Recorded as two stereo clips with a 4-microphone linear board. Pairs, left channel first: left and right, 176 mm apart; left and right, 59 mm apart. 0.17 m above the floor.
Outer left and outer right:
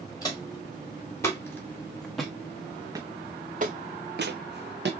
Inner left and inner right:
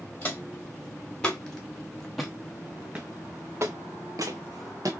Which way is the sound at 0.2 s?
20° left (ahead or behind).